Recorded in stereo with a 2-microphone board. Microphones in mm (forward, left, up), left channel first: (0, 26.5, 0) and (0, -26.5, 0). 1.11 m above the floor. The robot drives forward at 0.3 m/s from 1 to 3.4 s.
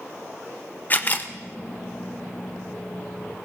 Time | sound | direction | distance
0.9 | a camera shutter | 35° left (ahead or behind) | 0.5 m